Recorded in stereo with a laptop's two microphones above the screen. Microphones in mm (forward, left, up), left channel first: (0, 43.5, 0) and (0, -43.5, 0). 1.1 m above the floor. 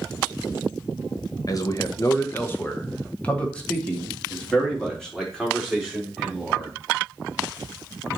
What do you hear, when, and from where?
1.5 s a man speaking: 45° left (ahead or behind), 1.1 m; by 6.7 s centre (ahead or behind), 4.5 m